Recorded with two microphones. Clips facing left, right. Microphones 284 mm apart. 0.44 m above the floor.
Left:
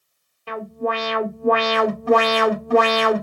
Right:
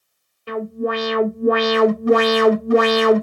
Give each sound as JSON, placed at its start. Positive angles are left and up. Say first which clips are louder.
{"t": 0.5, "sound": "an alarm", "louder": "right 3 dB", "side_deg": -15, "distance_m": 2.0}